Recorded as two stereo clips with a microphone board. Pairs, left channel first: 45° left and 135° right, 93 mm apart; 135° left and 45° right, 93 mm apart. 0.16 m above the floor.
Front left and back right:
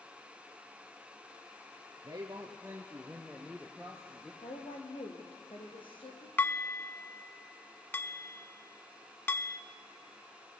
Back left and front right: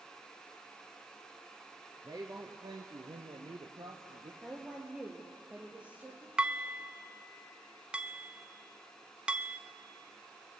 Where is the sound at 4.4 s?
30° left, 4.5 m.